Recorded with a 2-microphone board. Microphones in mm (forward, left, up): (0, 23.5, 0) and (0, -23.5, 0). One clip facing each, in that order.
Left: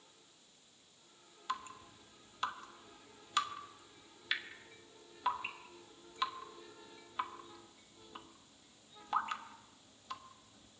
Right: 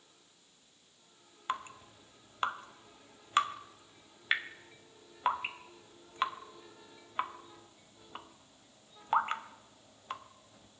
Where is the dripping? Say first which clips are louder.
Right 4 dB; 40° right (ahead or behind), 0.9 m.